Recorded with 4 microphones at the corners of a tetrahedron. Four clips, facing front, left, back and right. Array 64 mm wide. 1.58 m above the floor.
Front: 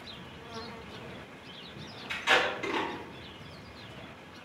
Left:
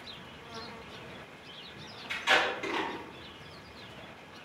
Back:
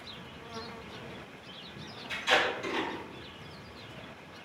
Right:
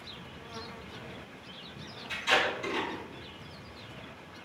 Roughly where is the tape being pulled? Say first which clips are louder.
Left 1 dB, front 1 dB; ahead left.